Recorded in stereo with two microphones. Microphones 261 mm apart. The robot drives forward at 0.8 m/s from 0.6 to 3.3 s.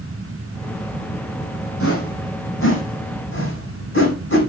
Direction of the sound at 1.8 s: 60° left (ahead or behind).